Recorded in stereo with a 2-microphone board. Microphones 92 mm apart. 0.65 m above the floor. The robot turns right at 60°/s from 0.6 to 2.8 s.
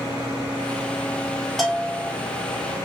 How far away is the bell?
About 1.0 m.